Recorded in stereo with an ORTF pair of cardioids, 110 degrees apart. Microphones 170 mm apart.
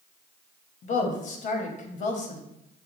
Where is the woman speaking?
50° left, 1.0 m.